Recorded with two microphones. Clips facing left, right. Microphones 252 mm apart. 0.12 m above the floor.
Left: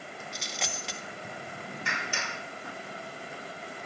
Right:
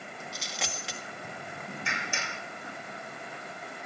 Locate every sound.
0.3 s a dropped coin: centre (ahead or behind), 1.4 m
1.9 s a clap: 65° left (ahead or behind), 4.5 m